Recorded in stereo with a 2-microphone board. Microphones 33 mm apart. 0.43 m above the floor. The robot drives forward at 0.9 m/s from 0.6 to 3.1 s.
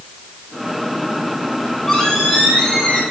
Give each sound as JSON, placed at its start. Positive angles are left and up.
{"t": 1.6, "sound": "a squeak", "side_deg": 10, "distance_m": 4.5}